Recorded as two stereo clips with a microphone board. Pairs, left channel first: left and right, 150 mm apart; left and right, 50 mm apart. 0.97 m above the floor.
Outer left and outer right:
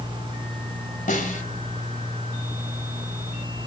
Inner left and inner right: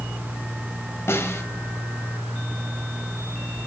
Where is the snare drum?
60° left (ahead or behind), 2.5 m.